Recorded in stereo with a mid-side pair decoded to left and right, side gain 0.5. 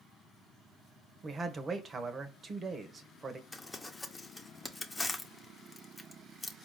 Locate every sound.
1.2 s a man speaking: 35° right, 1.3 m
3.5 s crumpling: 15° left, 1.0 m